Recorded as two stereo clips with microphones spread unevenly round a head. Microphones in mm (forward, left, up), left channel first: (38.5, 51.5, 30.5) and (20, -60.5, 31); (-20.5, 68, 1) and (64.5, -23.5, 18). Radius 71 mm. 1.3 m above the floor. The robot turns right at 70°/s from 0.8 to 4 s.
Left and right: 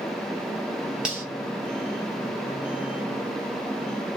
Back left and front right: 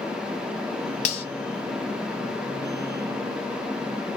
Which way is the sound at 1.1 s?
175° left.